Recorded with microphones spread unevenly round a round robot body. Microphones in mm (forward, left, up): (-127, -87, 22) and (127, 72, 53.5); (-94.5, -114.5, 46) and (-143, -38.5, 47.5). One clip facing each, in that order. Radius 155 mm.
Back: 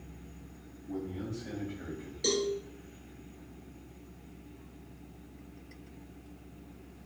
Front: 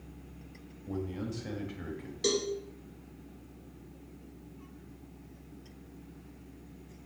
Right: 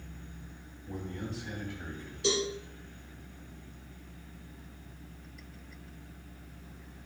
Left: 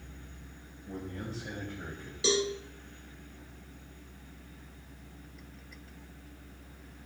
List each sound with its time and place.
0.9 s a man speaking: 50° left, 2.5 m; by 2.1 s 70° left, 2.5 m
2.2 s a cowbell: 105° left, 2.0 m